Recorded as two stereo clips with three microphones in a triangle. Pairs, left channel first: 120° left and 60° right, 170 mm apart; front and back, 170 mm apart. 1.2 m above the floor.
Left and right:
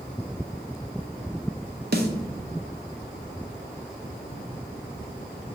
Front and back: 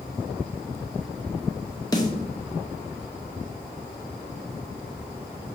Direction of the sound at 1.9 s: 65° right.